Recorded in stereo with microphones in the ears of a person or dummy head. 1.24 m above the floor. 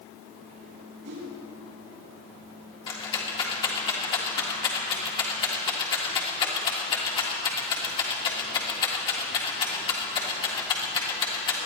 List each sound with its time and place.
1.0 s a whoosh: 80° right, 5 m
2.9 s a rattle: 25° left (ahead or behind), 1.9 m